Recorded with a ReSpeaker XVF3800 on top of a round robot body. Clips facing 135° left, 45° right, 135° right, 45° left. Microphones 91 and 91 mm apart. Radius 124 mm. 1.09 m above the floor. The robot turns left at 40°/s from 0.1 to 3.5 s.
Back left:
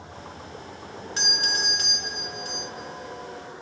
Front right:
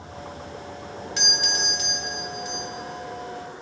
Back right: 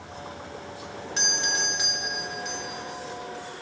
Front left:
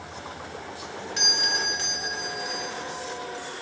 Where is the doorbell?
175° left, 1.4 m; by 2.7 s 115° left, 1.4 m.